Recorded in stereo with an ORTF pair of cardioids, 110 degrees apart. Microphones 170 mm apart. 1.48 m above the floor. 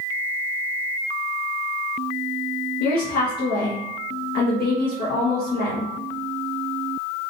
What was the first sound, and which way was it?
A woman speaking, 70° left.